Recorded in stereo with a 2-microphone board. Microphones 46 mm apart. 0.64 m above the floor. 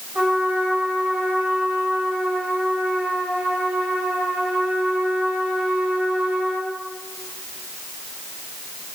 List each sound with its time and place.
0.1 s a trumpet: 20° right (ahead or behind), 3 m